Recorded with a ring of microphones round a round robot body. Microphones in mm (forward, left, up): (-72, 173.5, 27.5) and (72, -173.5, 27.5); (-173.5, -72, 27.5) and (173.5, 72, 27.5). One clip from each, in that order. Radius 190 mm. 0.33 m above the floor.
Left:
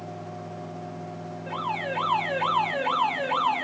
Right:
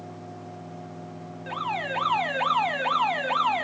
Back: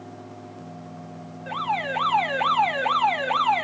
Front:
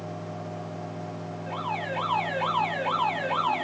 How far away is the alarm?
About 3.5 m.